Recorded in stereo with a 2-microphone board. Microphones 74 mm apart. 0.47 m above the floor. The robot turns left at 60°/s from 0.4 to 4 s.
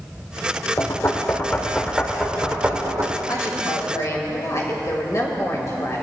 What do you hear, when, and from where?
0.8 s knocking: 50° left (ahead or behind), 1.3 m; by 3.2 s 45° right (ahead or behind), 1.3 m
3.3 s a woman speaking: 100° left, 2.5 m; by 6.0 s 55° left, 2.5 m